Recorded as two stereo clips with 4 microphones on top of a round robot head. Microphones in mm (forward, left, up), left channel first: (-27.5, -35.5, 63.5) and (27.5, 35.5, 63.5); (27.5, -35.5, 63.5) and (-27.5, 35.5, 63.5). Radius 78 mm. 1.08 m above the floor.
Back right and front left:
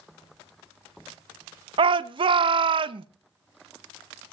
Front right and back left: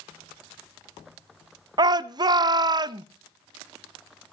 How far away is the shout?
About 0.8 m.